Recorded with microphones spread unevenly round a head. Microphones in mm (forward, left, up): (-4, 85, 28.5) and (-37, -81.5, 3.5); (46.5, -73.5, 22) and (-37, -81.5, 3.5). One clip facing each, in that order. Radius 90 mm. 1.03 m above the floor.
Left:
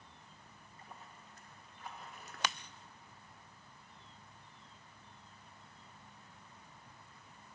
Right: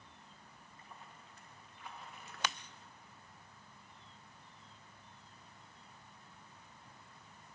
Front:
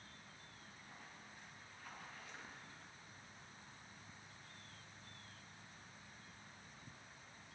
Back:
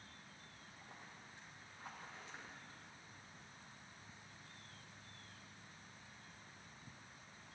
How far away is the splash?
About 1.1 m.